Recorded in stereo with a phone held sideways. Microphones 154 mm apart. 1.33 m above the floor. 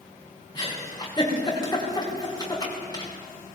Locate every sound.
0.6 s a giggle: 30° left (ahead or behind), 4.5 m